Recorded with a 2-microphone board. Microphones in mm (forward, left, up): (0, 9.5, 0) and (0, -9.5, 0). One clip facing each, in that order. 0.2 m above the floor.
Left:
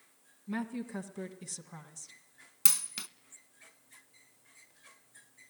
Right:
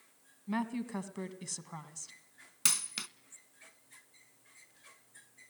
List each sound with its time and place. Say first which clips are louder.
0.5 s a woman speaking: right 2 dB; 30° right (ahead or behind), 1.6 m
2.6 s a dropped coin: right 1 dB; 15° right (ahead or behind), 0.5 m